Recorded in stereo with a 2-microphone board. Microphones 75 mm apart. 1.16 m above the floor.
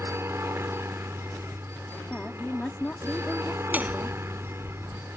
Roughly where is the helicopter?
Right.